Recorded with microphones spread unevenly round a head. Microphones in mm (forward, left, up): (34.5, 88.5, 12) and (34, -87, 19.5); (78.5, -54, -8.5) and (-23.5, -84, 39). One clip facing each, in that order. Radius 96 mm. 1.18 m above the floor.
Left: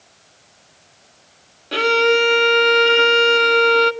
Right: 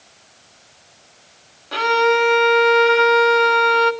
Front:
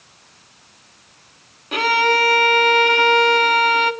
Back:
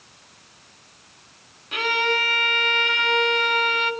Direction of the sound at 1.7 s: 35° left.